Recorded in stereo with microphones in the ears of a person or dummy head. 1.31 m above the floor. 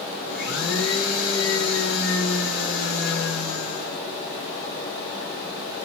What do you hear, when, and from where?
0.3 s a blender: 75° left (ahead or behind), 4 m